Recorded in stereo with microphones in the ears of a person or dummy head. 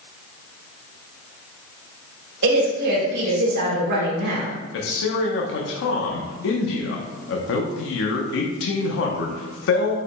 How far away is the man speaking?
About 0.8 m.